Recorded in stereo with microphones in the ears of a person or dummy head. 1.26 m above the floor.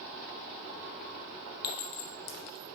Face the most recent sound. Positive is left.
turn(degrees=55)  # may be behind; listen again after turning